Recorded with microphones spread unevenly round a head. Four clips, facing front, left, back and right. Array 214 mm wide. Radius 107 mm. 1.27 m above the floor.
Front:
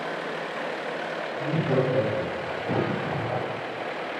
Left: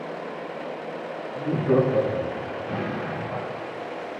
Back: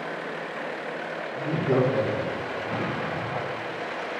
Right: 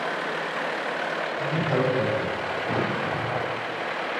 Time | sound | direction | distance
1.4 | laughter | 100° left | 3.5 m
2.7 | an explosion | 25° right | 1.5 m